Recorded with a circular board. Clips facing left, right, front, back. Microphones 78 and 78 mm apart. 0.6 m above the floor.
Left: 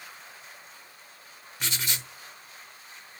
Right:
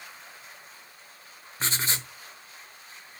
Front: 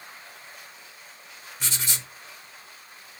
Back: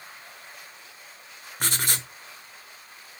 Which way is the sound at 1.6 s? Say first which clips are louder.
Right 3 dB, back 5 dB; 145° right.